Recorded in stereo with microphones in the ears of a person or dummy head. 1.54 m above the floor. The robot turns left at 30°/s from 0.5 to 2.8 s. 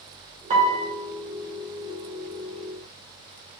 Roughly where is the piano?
Right.